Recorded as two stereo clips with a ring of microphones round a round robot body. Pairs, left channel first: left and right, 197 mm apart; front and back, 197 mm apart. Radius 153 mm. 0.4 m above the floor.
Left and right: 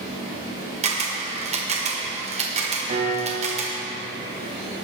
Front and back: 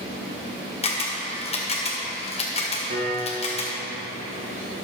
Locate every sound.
0.8 s a camera shutter: 45° right, 1.6 m
2.9 s a piano: 145° right, 4.5 m